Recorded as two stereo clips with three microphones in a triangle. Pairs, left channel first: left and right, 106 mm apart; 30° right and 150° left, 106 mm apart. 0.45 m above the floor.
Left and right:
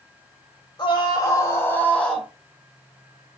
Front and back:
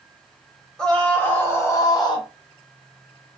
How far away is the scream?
About 1.6 m.